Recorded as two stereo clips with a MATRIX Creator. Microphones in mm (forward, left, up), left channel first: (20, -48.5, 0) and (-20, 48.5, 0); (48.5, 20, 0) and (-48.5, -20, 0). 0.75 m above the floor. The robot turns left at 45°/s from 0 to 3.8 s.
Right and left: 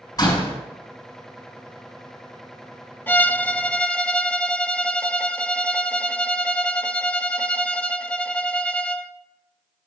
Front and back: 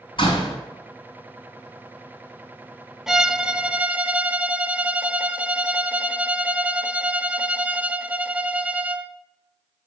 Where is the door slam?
15° right, 4 m; by 0.6 s 30° right, 4 m.